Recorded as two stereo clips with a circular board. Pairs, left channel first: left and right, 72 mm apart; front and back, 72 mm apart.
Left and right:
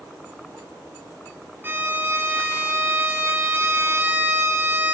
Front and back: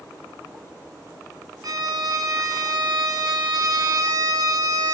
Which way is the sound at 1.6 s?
150° right.